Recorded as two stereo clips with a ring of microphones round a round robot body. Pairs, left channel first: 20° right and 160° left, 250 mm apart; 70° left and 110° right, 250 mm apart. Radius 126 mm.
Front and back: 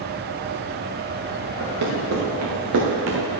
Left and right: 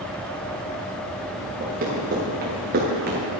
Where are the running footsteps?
170° right, 4 m; by 3.3 s 160° right, 1.9 m.